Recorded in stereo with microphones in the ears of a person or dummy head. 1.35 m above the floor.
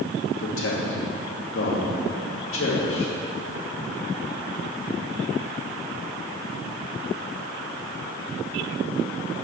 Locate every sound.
0.4 s a man speaking: 65° left (ahead or behind), 0.8 m